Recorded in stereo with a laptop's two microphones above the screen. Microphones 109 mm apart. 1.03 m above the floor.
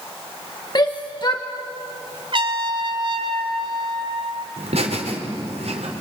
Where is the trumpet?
50° right (ahead or behind), 1.6 m.